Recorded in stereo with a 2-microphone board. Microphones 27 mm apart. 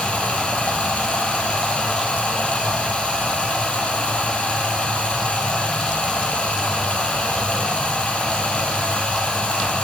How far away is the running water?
About 1.8 m.